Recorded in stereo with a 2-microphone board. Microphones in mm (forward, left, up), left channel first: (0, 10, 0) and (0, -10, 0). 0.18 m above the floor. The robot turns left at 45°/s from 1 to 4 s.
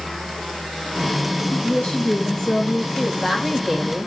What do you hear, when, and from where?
1.5 s a woman speaking: 95° left, 8 m; by 2.9 s 30° left, 8 m
3.0 s a woman speaking: 15° left, 7 m; by 4.1 s 30° right, 7 m